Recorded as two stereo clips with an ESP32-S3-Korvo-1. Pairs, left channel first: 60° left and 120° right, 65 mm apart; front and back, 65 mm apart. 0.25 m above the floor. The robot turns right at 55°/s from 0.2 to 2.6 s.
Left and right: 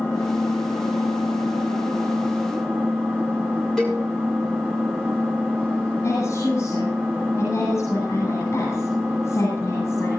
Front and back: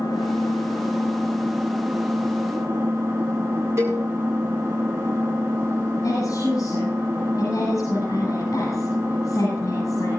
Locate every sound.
0.0 s an engine running: 5° left, 4 m; by 10.2 s 135° left, 4 m
3.8 s a cowbell: 140° left, 7 m
6.0 s a woman speaking: 30° left, 9 m